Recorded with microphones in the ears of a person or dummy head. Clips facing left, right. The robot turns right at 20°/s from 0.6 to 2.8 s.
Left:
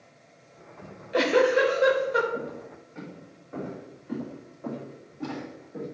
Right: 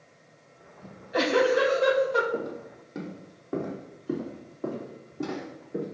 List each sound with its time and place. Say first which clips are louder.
0.8 s a giggle: left 2 dB; 35° left (ahead or behind), 2.5 m; by 2.2 s 10° left (ahead or behind), 2.5 m
2.3 s footsteps: right 2 dB; 55° right (ahead or behind), 2.5 m; by 5.8 s 60° right (ahead or behind), 5 m